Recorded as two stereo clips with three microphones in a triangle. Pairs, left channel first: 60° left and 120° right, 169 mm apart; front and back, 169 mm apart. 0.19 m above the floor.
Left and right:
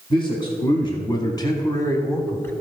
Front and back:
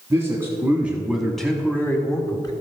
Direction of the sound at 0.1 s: 115° left.